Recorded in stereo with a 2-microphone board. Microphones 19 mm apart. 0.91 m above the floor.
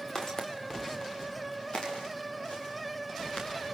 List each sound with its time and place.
0.1 s footsteps: 30° left (ahead or behind), 4 m; by 3.5 s 65° left (ahead or behind), 7 m